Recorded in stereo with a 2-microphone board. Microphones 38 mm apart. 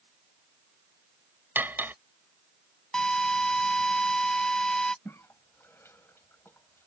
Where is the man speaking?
I don't hear a man speaking.